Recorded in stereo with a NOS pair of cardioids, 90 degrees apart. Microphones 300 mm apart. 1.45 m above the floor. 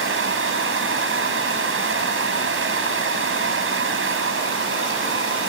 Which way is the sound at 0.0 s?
45° right.